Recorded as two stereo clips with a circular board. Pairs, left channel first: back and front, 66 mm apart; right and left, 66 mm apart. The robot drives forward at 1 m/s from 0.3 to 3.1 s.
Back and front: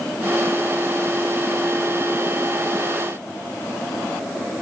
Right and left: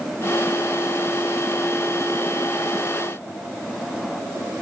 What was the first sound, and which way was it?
Only background noise.